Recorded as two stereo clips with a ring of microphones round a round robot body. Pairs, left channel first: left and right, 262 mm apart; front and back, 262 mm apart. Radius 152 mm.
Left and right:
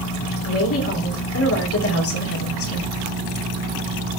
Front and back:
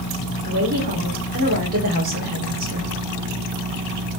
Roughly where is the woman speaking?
Behind left.